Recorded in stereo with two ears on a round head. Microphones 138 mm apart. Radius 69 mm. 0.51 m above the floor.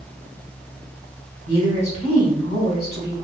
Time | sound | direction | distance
1.4 | a woman speaking | 45° left (ahead or behind) | 1.9 m